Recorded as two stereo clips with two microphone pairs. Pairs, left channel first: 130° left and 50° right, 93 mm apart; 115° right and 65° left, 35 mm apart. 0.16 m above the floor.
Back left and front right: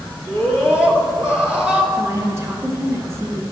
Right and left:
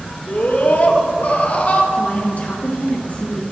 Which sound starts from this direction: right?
A woman speaking, at 1.9 s.